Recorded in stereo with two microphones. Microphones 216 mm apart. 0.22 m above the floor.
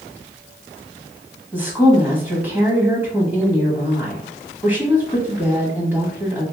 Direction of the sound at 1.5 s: 10° right (ahead or behind).